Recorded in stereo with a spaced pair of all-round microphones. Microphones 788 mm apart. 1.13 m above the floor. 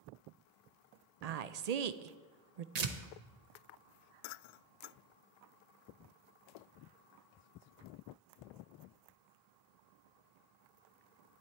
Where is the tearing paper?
55° right (ahead or behind), 0.9 m.